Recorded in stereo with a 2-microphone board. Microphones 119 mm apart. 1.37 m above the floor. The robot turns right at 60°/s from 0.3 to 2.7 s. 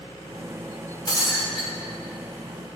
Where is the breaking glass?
140° left, 3.5 m; by 1.7 s straight behind, 3.5 m.